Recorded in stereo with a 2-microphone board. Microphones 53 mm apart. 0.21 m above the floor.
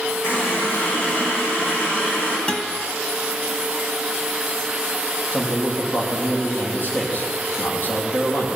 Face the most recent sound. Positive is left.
turn(degrees=40)  # may be behind; listen again after turning